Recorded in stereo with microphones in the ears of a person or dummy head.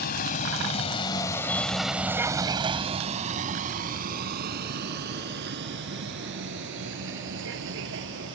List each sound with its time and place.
0.0 s a vehicle: 50° left (ahead or behind); by 8.4 s 70° right (ahead or behind)